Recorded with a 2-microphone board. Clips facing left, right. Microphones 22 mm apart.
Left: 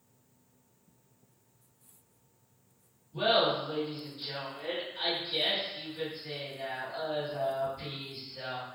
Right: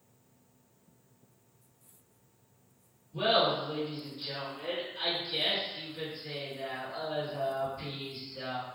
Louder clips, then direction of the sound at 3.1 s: Even; 5° left (ahead or behind).